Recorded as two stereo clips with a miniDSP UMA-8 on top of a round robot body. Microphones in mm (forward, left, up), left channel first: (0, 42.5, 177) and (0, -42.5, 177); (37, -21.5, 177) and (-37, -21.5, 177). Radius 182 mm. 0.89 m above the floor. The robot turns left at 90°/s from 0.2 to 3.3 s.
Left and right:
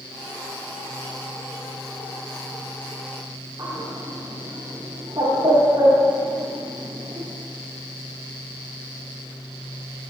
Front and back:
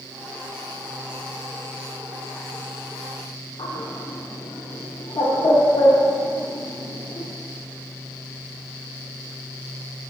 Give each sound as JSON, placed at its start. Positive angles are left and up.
{"t": 3.6, "sound": "a bird", "azimuth_deg": -25, "distance_m": 1.0}